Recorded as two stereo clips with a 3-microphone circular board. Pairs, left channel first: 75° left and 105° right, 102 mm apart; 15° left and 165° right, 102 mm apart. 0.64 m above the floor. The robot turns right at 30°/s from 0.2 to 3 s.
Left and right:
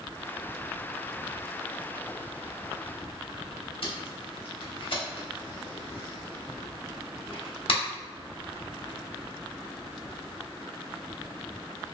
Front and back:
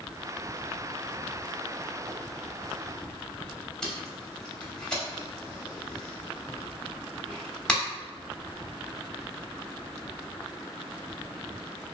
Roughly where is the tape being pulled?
Left.